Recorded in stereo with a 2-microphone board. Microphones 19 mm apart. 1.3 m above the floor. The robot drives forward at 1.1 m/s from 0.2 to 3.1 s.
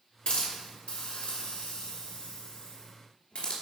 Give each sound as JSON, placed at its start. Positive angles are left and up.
{"t": 0.3, "sound": "a hiss", "side_deg": 70, "distance_m": 3.5}